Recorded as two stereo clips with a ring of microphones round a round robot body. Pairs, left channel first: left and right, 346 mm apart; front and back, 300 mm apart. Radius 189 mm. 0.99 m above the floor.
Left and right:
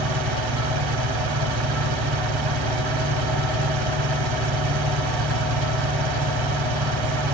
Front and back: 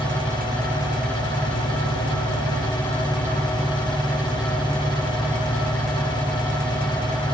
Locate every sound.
0.0 s an engine running: 75° right